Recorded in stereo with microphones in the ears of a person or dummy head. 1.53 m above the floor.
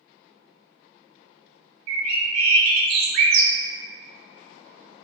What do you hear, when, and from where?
1.9 s a bird: 60° right (ahead or behind), 0.7 m